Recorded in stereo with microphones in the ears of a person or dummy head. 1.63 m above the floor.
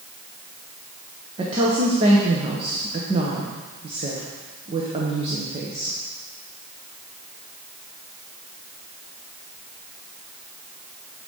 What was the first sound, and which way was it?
A woman speaking, 30° right (ahead or behind).